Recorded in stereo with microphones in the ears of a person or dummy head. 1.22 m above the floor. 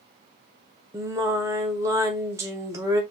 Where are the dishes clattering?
No dishes clattering in this recording.